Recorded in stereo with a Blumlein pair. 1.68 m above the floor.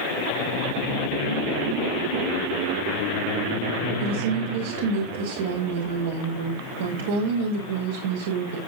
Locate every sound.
4.0 s a woman speaking: 60° right, 6.5 m